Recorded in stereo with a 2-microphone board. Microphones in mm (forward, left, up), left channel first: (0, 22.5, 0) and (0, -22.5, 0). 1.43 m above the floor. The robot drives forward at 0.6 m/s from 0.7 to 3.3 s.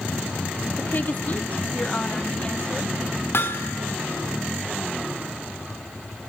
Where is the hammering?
65° left (ahead or behind), 1.9 m.